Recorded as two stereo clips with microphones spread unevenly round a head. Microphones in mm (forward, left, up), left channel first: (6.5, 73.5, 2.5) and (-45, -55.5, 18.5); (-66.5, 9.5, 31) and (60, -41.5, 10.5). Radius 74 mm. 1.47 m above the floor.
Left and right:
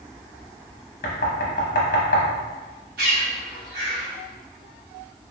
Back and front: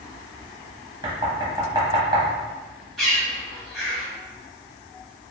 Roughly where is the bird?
Behind right.